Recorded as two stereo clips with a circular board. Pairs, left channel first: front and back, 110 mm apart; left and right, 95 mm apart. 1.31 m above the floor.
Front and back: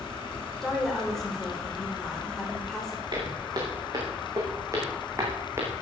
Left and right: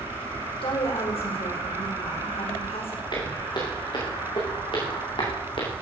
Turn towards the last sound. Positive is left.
turn(degrees=110)